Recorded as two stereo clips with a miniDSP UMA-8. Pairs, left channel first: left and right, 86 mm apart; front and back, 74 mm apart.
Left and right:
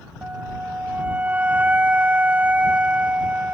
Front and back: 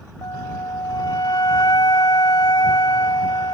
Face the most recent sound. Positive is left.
turn(degrees=-20)